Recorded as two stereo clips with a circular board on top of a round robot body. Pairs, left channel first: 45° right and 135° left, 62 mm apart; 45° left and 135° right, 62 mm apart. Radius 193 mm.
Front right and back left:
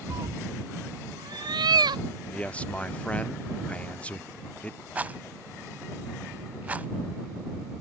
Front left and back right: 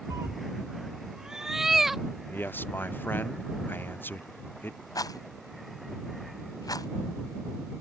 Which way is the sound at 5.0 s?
70° left.